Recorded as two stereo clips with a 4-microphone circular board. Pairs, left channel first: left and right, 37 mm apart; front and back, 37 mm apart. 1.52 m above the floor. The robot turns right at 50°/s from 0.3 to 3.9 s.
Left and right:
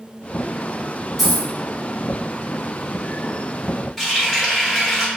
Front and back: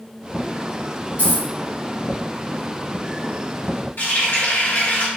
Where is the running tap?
5° left, 1.2 m.